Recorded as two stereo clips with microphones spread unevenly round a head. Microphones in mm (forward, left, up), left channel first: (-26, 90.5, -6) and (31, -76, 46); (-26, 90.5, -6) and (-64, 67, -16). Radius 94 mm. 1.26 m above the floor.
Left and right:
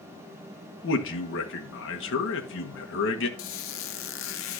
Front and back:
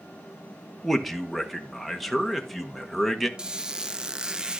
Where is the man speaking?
120° left, 1.5 m.